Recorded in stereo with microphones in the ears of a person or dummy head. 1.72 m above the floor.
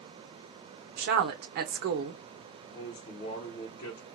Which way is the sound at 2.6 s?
40° left (ahead or behind).